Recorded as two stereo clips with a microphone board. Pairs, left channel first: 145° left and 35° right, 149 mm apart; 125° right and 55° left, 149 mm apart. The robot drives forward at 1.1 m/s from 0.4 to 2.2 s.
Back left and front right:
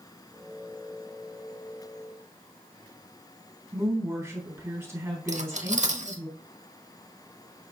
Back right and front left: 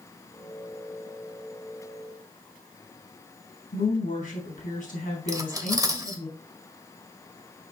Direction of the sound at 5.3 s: 5° right.